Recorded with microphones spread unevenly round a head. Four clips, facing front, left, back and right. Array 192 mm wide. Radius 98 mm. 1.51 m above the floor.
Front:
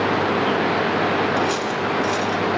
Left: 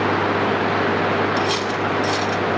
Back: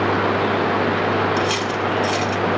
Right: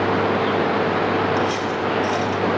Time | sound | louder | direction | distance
1.4 | cutlery clinking | even, back 1 dB | 130° left | 5 m